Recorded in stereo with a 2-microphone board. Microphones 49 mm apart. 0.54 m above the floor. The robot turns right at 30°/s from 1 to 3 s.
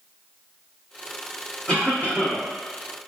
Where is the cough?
30° left (ahead or behind), 1.5 m; by 2.5 s 25° left (ahead or behind), 1.5 m.